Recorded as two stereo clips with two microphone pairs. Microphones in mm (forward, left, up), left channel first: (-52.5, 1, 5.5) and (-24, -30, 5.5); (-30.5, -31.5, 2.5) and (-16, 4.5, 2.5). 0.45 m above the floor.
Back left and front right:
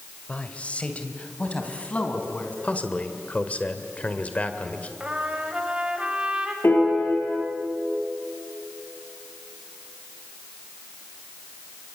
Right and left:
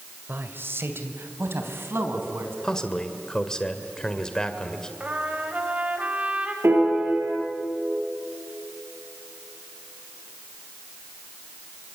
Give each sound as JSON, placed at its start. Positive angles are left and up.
{"t": 0.3, "sound": "a man speaking", "azimuth_deg": 75, "distance_m": 2.0}
{"t": 2.6, "sound": "a man speaking", "azimuth_deg": 180, "distance_m": 2.0}
{"t": 5.0, "sound": "a trumpet", "azimuth_deg": 15, "distance_m": 2.5}
{"t": 6.6, "sound": "a piano", "azimuth_deg": 95, "distance_m": 8.5}